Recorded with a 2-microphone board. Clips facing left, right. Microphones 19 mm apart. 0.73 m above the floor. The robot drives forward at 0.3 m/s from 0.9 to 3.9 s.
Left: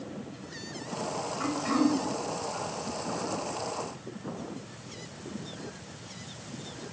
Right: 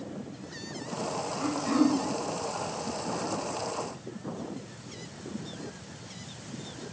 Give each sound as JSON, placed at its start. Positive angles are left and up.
{"t": 1.4, "sound": "throat clearing", "side_deg": 30, "distance_m": 0.6}